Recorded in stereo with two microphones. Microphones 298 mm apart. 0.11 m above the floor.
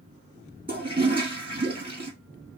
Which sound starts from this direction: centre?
A toilet flushing, at 0.7 s.